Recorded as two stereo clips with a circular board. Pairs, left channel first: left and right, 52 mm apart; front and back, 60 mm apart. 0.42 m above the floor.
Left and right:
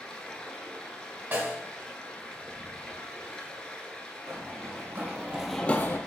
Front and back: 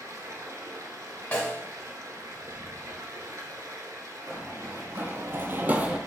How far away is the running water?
About 0.8 m.